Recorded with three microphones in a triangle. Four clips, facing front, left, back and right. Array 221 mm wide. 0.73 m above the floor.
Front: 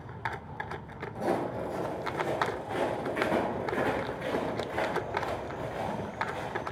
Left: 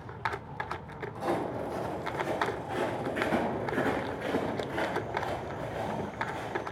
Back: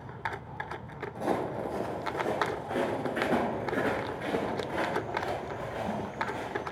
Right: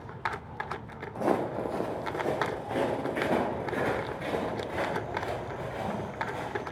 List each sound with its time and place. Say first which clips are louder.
1.1 s footsteps: right 4 dB, even; 90° right, 1.4 m; by 6.6 s 145° right, 5.5 m